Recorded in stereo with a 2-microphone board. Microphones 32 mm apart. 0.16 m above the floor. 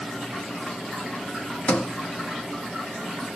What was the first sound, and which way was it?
A sliding door, 55° left (ahead or behind).